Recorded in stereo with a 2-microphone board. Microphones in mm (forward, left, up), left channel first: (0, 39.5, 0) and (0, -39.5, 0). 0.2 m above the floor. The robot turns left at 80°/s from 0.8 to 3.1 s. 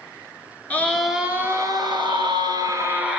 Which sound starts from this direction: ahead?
A scream, at 0.7 s.